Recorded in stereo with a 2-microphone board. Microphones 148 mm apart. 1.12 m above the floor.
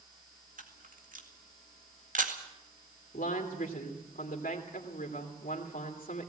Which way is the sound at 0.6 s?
65° right (ahead or behind).